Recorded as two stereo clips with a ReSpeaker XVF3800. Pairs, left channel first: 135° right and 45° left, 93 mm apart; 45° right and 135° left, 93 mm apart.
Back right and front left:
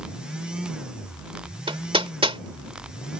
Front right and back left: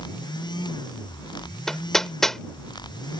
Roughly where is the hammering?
Ahead left.